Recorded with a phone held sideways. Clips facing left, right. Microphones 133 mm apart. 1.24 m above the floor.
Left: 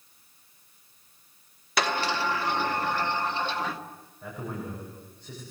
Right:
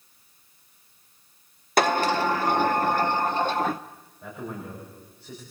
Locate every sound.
1.8 s a sliding door: 45° right (ahead or behind), 0.8 m
4.2 s a man speaking: 5° right (ahead or behind), 7 m